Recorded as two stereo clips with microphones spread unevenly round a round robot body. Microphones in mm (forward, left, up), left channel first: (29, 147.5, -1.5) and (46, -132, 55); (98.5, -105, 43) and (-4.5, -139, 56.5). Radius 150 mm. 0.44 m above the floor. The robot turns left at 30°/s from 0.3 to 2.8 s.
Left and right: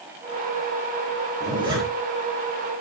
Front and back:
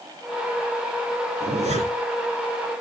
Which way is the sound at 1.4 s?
155° right.